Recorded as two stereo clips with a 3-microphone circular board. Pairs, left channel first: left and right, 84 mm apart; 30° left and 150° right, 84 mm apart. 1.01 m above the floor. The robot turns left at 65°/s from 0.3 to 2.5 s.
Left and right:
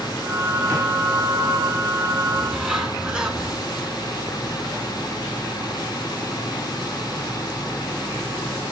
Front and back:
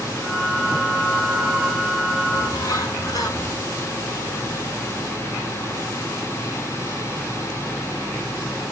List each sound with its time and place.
2.3 s a bird: straight ahead, 3 m; by 3.6 s 10° right, 3 m